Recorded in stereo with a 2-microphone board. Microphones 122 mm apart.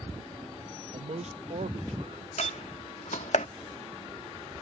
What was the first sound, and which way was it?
A man speaking, 65° right (ahead or behind).